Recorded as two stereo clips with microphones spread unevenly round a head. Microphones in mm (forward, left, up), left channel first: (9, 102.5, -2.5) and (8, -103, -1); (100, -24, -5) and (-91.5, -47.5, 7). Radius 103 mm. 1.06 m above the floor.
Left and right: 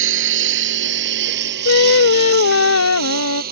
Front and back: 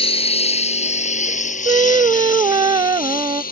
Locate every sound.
0.0 s a lawn mower: 55° right; by 3.5 s 40° right
1.6 s singing: 115° left